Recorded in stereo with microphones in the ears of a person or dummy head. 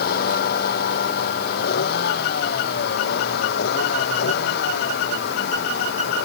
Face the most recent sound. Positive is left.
turn(degrees=60)  # may be behind; listen again after turning